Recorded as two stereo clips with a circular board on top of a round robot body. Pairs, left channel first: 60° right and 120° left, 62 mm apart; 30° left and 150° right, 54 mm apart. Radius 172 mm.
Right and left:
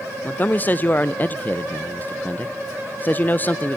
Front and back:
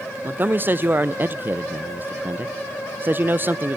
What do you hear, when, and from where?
0.2 s a man speaking: 110° right, 0.8 m